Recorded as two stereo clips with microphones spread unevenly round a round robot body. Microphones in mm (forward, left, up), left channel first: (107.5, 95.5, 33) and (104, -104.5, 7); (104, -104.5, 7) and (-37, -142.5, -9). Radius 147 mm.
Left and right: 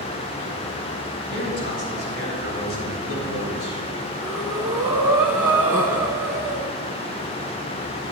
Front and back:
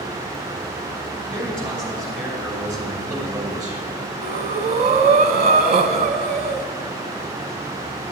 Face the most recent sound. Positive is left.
turn(degrees=180)